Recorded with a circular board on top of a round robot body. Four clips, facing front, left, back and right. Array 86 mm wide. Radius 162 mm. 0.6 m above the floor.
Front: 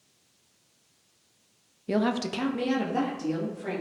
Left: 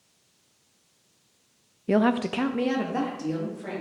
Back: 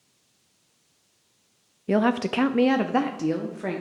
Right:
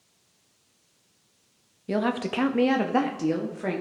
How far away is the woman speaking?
About 0.6 m.